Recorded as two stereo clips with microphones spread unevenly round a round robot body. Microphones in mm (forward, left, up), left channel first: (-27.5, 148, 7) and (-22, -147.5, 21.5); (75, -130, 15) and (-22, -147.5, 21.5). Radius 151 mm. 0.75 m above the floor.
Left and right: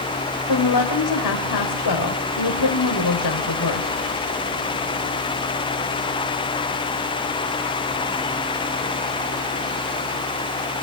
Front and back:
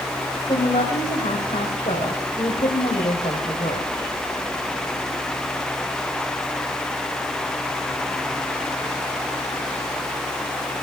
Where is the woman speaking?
70° left, 3.5 m.